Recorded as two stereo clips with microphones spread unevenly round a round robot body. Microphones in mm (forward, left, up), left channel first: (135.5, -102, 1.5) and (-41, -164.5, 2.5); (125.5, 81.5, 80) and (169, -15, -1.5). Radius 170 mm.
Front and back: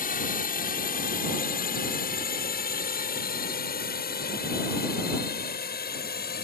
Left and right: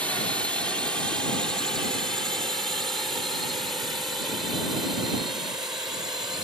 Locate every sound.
0.0 s a drone: 5° left; by 6.4 s straight ahead